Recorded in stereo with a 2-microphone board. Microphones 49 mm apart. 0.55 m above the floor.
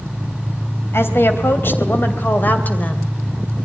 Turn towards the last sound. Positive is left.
turn(degrees=30)  # may be behind; listen again after turning